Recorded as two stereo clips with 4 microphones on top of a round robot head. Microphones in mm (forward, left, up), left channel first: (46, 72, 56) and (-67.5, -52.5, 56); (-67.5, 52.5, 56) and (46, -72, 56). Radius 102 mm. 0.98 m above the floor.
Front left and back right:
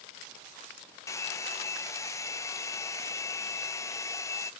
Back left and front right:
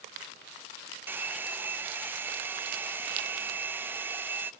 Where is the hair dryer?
10° left, 0.6 m.